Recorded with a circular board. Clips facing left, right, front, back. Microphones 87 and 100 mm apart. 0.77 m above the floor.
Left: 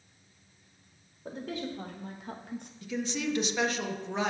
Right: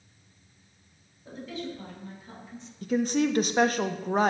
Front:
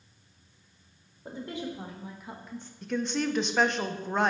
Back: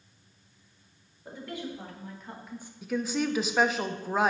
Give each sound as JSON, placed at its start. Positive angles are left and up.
{"t": 1.2, "sound": "a woman speaking", "azimuth_deg": 60, "distance_m": 2.0}
{"t": 2.8, "sound": "a woman speaking", "azimuth_deg": -95, "distance_m": 0.5}